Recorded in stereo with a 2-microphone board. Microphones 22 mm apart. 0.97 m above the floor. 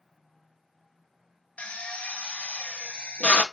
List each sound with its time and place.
1.6 s a drill: 75° left (ahead or behind), 0.6 m